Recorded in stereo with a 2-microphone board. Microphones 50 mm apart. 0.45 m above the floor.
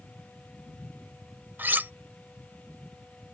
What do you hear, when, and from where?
1.6 s cutlery clinking: 40° right (ahead or behind)